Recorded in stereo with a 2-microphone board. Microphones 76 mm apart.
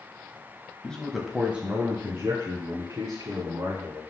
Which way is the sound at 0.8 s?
15° left (ahead or behind).